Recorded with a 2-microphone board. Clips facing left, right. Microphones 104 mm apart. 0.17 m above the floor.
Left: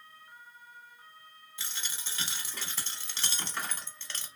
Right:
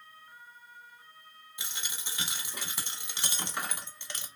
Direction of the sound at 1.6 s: 15° right (ahead or behind).